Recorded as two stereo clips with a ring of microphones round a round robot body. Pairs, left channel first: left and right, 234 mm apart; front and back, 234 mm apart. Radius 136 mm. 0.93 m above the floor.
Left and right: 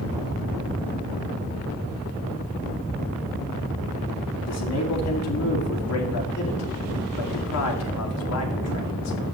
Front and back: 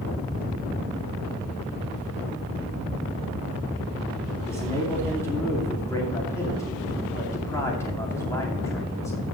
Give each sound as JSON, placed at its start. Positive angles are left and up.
{"t": 4.5, "sound": "a man speaking", "azimuth_deg": 80, "distance_m": 2.5}